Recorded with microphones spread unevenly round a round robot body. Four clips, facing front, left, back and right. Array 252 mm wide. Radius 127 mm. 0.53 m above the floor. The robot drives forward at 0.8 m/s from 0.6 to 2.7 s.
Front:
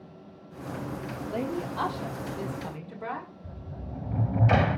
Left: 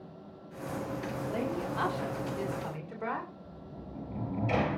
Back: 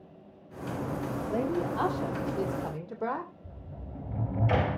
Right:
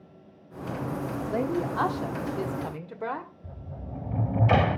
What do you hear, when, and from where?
1.3 s a woman speaking: 115° right, 1.3 m; by 3.3 s 155° right, 1.9 m
3.4 s a sliding door: 55° right, 1.4 m